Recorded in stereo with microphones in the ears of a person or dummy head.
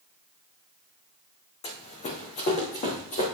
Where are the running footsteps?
25° left (ahead or behind), 3 m; by 3.2 s 30° left (ahead or behind), 2 m.